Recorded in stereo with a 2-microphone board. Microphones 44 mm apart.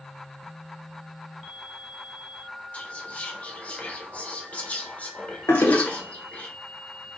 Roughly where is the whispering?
Left.